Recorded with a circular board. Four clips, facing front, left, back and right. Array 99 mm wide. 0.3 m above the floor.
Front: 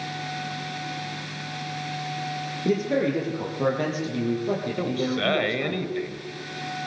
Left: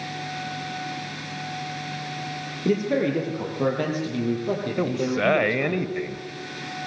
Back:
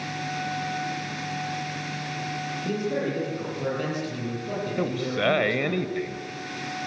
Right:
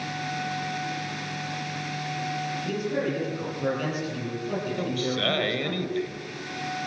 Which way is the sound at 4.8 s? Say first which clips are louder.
Left 4 dB, even; 105° left.